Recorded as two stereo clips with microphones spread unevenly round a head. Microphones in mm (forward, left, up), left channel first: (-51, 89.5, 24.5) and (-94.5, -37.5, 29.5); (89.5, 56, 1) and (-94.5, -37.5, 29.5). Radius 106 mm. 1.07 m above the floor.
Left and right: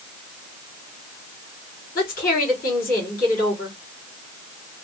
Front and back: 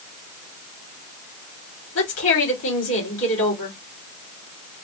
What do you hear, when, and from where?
1.9 s a woman speaking: 40° left, 3.5 m